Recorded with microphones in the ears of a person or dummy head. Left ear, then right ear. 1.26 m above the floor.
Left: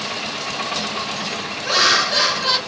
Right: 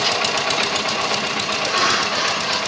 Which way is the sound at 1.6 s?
55° left (ahead or behind).